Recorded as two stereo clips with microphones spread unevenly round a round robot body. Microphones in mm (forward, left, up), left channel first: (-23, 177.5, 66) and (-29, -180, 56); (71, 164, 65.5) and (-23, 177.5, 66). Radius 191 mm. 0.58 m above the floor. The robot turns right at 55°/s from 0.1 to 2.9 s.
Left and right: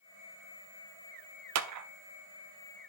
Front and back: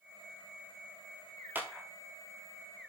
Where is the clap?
120° right, 0.7 m; by 1.9 s 105° right, 0.7 m.